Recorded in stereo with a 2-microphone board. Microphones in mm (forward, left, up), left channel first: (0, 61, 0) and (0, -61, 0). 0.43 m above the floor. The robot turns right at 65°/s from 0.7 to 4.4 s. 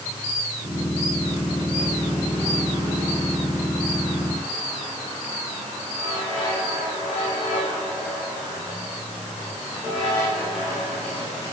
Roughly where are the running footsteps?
I don't hear running footsteps.